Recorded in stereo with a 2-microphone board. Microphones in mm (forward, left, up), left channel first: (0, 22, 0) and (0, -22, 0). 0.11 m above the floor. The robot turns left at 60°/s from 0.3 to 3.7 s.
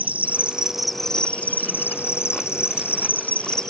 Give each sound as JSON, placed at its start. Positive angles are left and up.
{"t": 0.0, "sound": "an insect", "azimuth_deg": -145, "distance_m": 0.8}